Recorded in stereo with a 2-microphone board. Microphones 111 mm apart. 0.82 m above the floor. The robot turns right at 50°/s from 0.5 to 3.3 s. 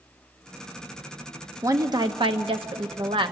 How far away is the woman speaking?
About 0.9 m.